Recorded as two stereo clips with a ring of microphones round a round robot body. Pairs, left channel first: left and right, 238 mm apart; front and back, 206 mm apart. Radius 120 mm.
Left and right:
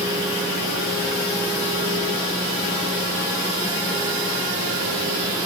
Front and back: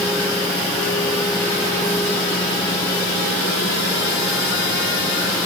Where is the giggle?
No giggle in this recording.